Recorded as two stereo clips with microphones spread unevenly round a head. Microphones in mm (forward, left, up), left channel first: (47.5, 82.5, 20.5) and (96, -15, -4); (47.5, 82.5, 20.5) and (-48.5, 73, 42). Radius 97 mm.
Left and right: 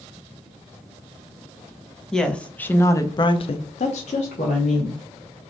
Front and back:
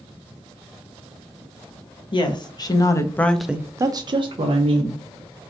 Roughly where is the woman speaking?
Ahead left.